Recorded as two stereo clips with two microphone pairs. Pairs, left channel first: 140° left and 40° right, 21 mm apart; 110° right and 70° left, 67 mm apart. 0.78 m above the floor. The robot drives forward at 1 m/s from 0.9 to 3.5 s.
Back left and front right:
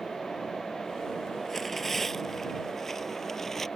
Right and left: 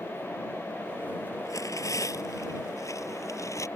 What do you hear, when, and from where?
1.4 s tearing paper: 145° right; by 3.7 s 150° right